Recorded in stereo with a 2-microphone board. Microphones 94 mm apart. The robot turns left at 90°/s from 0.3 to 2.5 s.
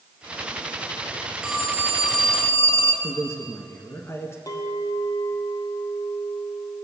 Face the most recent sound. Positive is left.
turn(degrees=40)  # may be behind; listen again after turning